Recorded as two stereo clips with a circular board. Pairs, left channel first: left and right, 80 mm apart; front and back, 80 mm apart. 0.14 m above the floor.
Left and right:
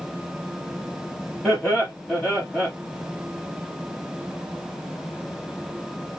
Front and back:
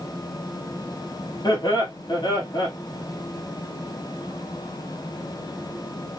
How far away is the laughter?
About 2.5 m.